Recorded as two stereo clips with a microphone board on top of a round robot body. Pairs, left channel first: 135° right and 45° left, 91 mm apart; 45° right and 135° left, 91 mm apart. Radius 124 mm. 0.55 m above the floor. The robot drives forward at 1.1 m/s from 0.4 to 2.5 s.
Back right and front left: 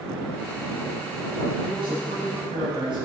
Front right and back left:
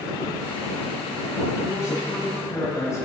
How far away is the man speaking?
About 6 m.